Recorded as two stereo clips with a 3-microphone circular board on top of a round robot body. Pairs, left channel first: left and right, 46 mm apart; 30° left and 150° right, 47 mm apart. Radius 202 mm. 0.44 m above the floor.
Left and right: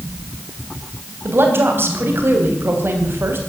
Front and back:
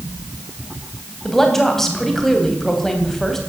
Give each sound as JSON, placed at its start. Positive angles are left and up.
{"t": 1.2, "sound": "a woman speaking", "azimuth_deg": -50, "distance_m": 3.5}